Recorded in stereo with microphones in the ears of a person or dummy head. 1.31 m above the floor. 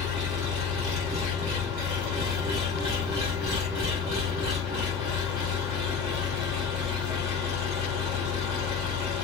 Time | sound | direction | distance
0.0 | an engine running | 20° right (ahead or behind) | 1.3 m